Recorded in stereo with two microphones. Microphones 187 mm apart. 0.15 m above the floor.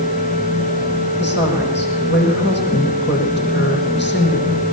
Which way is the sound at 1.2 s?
70° left (ahead or behind).